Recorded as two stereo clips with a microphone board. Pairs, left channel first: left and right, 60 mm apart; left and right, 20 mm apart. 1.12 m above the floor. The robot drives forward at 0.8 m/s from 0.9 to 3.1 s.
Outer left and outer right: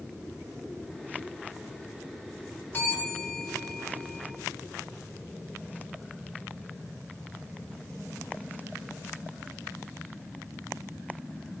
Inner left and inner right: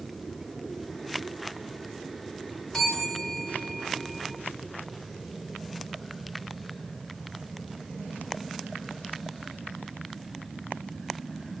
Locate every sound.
2.7 s a bell: 30° left (ahead or behind), 2.5 m; by 4.3 s 25° left (ahead or behind), 3 m